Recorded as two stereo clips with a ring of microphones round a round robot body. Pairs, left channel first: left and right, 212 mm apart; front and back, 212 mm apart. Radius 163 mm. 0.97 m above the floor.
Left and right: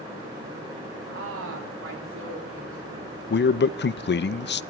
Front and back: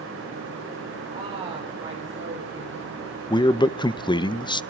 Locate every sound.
1.1 s a woman speaking: 105° right, 2.5 m; by 3.1 s 100° right, 4 m
3.3 s a man speaking: 70° left, 0.6 m